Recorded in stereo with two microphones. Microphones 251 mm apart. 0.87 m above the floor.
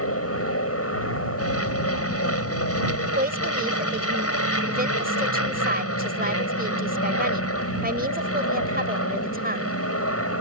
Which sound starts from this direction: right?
A woman speaking, at 3.1 s.